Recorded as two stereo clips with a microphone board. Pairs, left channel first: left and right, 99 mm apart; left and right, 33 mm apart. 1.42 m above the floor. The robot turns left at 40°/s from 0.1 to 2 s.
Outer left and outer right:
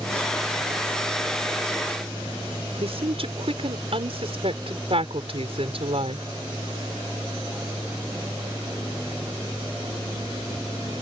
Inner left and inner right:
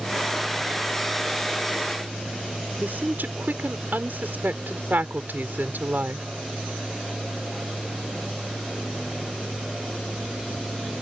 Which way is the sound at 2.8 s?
75° right (ahead or behind).